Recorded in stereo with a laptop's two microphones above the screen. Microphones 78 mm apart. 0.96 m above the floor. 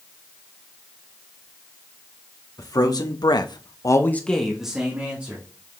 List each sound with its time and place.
2.6 s a man speaking: 50° left (ahead or behind), 1.8 m; by 5.8 s 20° right (ahead or behind), 2.5 m